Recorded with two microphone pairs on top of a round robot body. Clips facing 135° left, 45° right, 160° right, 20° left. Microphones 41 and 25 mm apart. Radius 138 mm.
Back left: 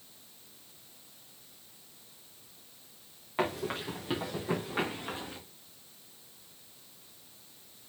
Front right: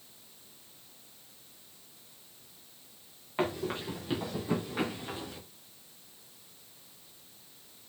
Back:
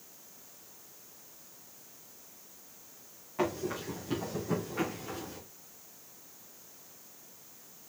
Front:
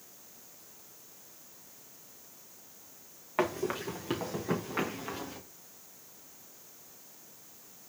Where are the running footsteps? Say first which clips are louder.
Even, front 2 dB; 45° left, 3.5 m; by 5.4 s 70° left, 4 m.